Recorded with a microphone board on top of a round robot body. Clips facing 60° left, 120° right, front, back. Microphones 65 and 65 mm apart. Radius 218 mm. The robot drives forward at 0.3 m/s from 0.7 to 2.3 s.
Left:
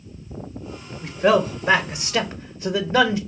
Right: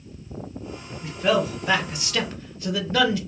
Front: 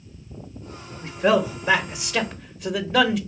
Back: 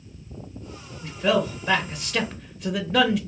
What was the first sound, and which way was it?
A man speaking, 35° left.